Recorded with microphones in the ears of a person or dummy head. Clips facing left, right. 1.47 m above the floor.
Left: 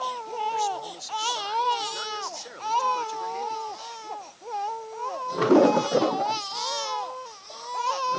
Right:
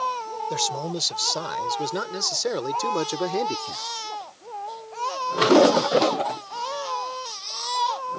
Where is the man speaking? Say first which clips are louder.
Right 4 dB; 85° right; by 3.9 s 70° right (ahead or behind).